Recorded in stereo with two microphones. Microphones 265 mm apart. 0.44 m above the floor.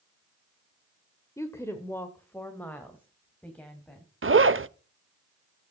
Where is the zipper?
50° right (ahead or behind), 0.5 m.